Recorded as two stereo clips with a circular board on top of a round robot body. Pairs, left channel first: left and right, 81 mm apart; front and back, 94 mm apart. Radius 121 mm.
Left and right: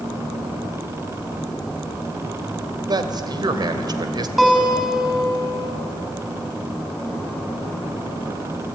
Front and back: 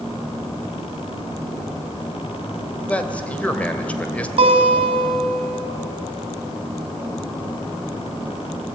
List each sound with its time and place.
2.9 s a man speaking: 75° right, 2.5 m
4.4 s a guitar: 175° right, 4 m